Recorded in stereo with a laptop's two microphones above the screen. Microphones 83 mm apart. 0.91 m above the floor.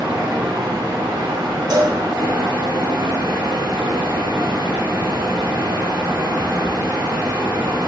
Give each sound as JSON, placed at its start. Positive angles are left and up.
{"t": 0.0, "sound": "a fan", "side_deg": -70, "distance_m": 1.5}
{"t": 1.7, "sound": "a cowbell", "side_deg": -50, "distance_m": 0.7}